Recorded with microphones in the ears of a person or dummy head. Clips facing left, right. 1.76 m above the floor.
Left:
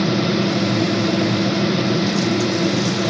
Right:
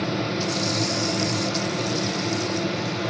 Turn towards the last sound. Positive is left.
turn(degrees=60)  # may be behind; listen again after turning